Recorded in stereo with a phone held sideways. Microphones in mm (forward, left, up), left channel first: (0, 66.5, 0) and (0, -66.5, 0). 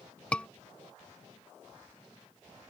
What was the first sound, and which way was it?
A scream, 10° left (ahead or behind).